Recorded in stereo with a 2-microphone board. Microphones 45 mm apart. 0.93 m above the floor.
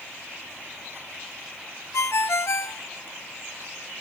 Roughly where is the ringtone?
Left.